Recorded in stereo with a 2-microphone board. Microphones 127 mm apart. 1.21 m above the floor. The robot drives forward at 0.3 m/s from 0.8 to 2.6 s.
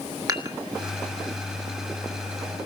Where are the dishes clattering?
30° right (ahead or behind), 2 m.